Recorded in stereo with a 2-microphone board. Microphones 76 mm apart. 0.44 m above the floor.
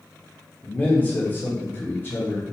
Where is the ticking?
No ticking in this recording.